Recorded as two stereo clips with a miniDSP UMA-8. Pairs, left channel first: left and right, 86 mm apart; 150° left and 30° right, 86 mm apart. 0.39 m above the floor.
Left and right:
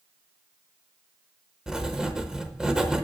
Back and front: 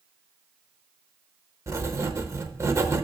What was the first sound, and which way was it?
Writing, 15° right.